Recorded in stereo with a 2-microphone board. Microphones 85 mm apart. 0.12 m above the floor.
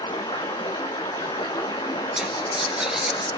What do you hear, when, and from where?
0.0 s running water: 75° left (ahead or behind), 2.5 m
2.2 s whispering: 5° right (ahead or behind), 1.8 m